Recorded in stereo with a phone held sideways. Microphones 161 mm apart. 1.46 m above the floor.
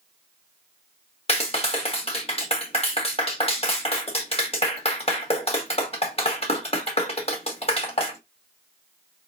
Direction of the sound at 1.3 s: 40° left (ahead or behind).